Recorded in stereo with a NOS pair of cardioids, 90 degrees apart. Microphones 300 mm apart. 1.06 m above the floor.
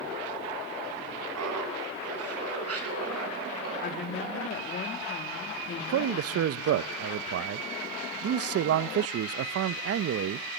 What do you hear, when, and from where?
1.4 s laughter: 60° right, 8.5 m; by 3.7 s 50° right, 11.5 m
3.8 s a woman speaking: 35° left, 2 m
5.8 s a man speaking: 50° right, 0.7 m